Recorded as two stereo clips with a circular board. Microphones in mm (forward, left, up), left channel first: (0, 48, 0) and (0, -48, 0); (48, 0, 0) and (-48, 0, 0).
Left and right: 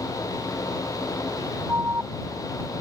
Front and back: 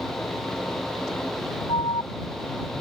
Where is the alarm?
25° right.